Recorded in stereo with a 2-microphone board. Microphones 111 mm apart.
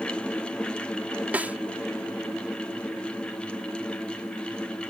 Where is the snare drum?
15° right (ahead or behind).